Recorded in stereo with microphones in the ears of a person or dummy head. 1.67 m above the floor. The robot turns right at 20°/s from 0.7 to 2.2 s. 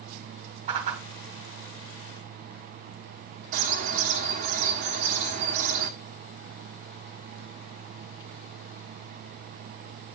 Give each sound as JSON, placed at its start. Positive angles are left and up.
{"t": 0.7, "sound": "a whoosh", "side_deg": -30, "distance_m": 1.8}
{"t": 3.5, "sound": "a bird", "side_deg": -30, "distance_m": 1.4}